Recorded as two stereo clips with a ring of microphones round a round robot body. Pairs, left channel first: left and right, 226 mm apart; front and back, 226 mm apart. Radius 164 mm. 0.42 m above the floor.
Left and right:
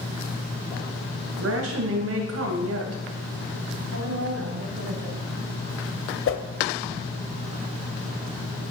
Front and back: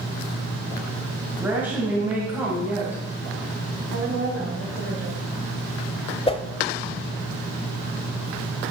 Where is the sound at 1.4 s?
95° right, 2.5 m.